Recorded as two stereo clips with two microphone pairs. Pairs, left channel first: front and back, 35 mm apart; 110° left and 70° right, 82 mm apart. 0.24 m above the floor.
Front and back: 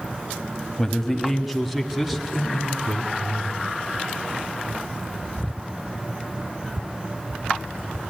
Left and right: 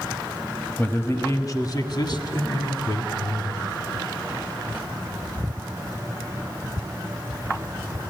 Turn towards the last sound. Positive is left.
turn(degrees=95)